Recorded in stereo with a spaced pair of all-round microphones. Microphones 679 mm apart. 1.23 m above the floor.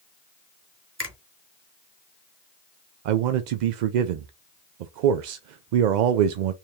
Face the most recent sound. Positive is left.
turn(degrees=-80)